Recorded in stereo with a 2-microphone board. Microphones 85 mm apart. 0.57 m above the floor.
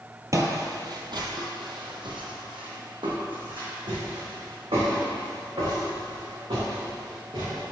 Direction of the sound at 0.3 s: 40° right (ahead or behind).